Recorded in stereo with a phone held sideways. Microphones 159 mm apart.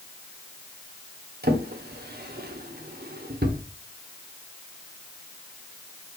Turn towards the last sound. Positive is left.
turn(degrees=-80)